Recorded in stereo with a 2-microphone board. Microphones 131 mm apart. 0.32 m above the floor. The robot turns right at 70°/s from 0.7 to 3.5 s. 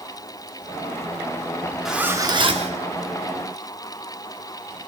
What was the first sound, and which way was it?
A zipper, straight behind.